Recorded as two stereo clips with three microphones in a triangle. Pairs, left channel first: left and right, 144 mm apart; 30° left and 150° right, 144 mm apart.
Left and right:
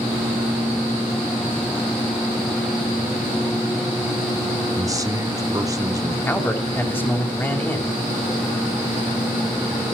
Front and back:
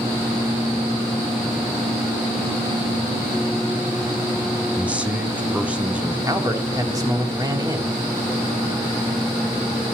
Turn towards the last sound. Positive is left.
turn(degrees=160)